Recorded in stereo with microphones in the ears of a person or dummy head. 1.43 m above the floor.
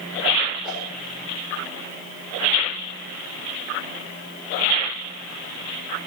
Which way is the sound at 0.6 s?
5° right (ahead or behind).